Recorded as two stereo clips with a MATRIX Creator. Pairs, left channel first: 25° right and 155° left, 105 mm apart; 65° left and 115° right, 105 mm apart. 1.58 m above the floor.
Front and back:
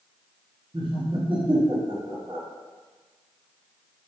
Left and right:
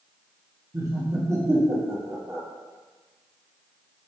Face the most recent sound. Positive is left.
turn(degrees=-170)